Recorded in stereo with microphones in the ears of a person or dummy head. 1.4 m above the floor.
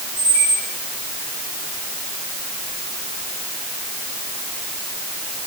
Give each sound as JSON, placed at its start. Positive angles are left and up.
{"t": 0.2, "sound": "a squeak", "side_deg": 80, "distance_m": 5.0}